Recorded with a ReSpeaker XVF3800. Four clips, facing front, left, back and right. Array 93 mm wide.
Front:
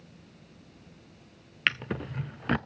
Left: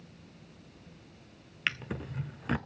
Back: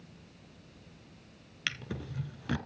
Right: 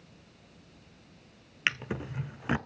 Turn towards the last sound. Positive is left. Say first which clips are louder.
# right 3 dB, front 8 dB
turn(degrees=-25)